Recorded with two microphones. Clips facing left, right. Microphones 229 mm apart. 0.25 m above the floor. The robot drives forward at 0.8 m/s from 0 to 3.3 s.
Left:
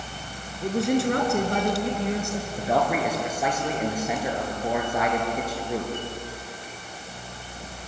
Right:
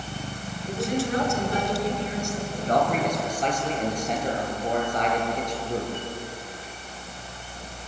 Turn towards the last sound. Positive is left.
turn(degrees=5)  # may be behind; listen again after turning